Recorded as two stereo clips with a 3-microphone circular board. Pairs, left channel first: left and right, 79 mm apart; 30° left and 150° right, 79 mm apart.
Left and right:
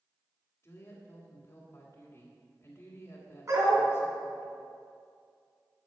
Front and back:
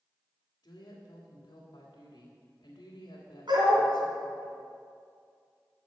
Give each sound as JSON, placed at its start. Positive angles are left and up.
{"t": 0.6, "sound": "a woman speaking", "azimuth_deg": 40, "distance_m": 2.5}
{"t": 3.5, "sound": "a dog barking", "azimuth_deg": -135, "distance_m": 4.0}